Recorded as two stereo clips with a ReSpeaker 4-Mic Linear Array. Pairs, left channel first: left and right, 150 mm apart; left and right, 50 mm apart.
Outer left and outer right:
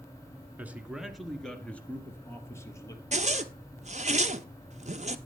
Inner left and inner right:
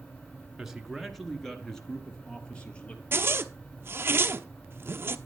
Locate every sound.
0.6 s a man speaking: 10° right (ahead or behind), 1.5 m; by 3.0 s 20° left (ahead or behind), 2.5 m
3.1 s a zipper: 50° right (ahead or behind), 0.7 m